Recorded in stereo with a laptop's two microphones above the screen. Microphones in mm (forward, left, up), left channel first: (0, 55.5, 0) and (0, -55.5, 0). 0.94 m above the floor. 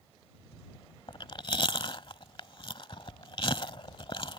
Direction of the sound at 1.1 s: 50° left (ahead or behind).